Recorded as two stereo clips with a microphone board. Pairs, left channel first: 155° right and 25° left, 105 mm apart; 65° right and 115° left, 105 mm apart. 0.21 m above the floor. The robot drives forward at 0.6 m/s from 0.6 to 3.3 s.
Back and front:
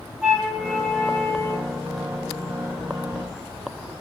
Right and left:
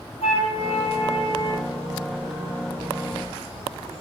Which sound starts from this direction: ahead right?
A flute, at 0.2 s.